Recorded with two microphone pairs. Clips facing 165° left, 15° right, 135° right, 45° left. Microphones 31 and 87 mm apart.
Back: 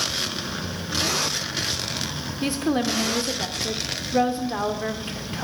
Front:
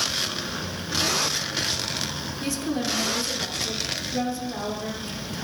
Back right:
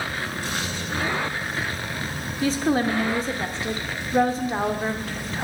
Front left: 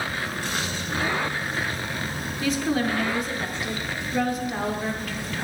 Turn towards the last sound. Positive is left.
turn(degrees=-175)